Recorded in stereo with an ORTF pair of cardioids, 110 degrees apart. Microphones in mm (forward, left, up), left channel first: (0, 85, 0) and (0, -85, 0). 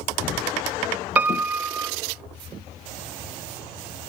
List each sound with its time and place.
1.2 s a piano: 10° right, 0.9 m